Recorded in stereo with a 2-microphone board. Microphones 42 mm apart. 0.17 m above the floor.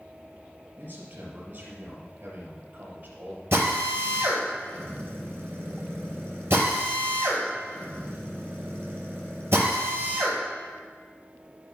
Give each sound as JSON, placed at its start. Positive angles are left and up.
{"t": 0.8, "sound": "a man speaking", "side_deg": -55, "distance_m": 4.5}
{"t": 3.5, "sound": "a drill", "side_deg": -65, "distance_m": 4.0}